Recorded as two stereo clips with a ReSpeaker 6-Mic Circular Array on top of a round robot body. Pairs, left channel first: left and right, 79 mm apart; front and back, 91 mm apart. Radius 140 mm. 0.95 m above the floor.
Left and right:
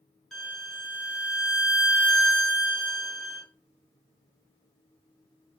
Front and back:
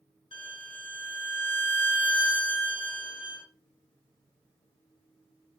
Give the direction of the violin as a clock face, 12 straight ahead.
12 o'clock.